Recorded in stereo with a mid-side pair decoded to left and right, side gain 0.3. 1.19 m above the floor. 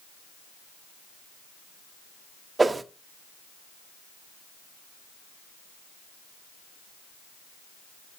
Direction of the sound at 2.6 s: 35° right.